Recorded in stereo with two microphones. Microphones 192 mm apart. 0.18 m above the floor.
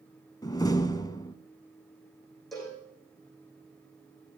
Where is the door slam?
20° left (ahead or behind), 0.9 m.